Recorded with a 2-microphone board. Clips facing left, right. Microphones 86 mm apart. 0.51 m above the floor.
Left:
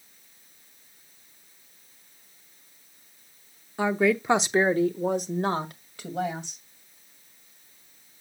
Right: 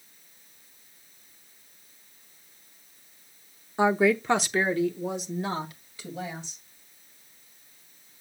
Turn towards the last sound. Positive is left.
turn(degrees=65)  # may be behind; listen again after turning